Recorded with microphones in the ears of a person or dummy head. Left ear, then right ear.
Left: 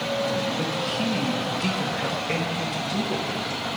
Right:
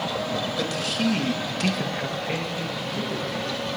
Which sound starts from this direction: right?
A man speaking, at 0.6 s.